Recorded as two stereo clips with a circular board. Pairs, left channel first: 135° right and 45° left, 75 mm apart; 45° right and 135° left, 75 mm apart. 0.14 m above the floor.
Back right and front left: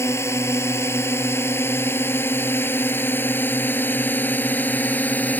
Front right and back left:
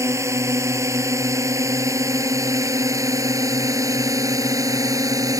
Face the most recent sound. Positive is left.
turn(degrees=160)